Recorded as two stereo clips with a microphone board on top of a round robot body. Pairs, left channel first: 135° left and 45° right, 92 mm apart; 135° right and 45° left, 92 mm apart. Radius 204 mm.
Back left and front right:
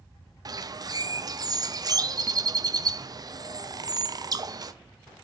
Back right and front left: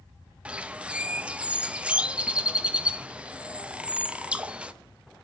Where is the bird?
30° right, 0.6 m.